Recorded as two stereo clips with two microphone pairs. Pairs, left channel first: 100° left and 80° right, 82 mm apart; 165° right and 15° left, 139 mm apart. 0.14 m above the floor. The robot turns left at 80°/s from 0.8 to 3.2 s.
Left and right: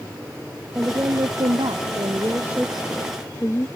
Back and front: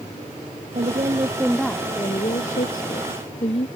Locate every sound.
0.8 s a woman speaking: 10° right; by 3.7 s 155° left